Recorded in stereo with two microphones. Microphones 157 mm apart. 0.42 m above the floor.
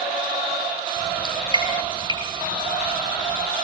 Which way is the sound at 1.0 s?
25° right (ahead or behind).